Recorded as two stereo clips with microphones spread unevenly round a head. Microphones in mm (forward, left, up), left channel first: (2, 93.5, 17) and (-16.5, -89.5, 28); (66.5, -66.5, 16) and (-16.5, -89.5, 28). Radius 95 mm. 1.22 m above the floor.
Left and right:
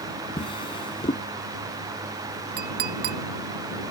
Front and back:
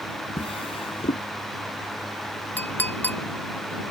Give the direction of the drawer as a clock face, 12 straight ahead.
11 o'clock.